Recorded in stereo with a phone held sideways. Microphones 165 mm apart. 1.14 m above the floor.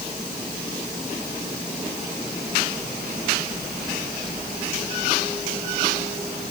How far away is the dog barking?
I don't hear a dog barking.